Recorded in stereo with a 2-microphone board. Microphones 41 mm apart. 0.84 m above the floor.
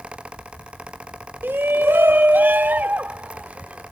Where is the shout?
60° right (ahead or behind); by 3.8 s 40° right (ahead or behind).